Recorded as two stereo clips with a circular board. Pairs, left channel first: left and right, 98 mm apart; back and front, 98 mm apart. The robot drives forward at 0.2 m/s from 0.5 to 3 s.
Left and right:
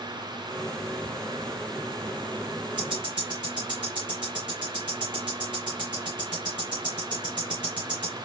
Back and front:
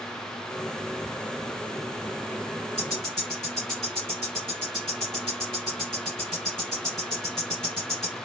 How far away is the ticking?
About 3.5 m.